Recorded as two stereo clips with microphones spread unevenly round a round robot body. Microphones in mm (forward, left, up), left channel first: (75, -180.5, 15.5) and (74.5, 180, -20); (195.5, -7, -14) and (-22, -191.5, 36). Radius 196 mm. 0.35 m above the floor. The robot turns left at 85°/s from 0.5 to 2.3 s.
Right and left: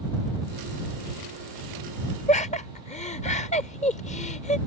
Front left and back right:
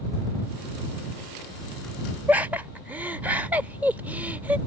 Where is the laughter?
35° right.